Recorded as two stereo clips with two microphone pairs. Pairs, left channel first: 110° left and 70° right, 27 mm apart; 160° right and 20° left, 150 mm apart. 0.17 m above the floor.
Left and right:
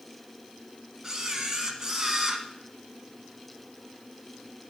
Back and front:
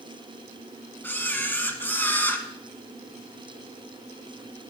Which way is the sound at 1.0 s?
105° right.